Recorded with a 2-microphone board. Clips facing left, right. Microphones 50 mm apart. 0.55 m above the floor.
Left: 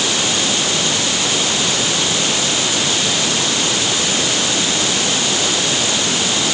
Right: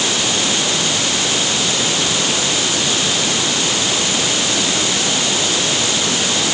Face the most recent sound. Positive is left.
No sound to turn to.